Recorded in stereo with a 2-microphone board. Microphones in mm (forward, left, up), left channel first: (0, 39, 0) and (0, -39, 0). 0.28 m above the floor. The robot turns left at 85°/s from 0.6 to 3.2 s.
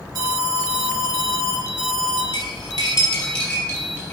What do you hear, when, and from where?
0.1 s an alarm: 75° right, 1.6 m; by 2.2 s 150° left, 1.6 m
2.3 s cutlery clinking: 80° left, 3.5 m; by 4.1 s 20° left (ahead or behind), 3.5 m